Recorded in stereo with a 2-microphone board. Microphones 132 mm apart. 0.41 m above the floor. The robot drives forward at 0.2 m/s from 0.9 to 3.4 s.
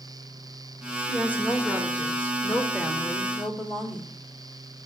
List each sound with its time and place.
1.1 s a woman speaking: 10° left (ahead or behind), 0.8 m